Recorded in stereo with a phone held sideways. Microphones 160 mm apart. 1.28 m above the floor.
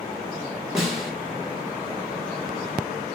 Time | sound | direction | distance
0.8 | a snare drum | centre (ahead or behind) | 1.5 m